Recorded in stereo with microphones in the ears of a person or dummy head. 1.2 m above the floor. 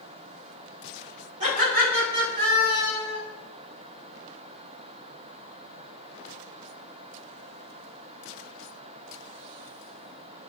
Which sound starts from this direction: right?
Laughter, at 1.4 s.